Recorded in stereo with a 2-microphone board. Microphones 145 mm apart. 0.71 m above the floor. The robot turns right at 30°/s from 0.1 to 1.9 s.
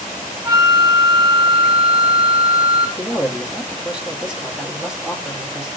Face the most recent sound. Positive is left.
turn(degrees=-5)  # may be behind; listen again after turning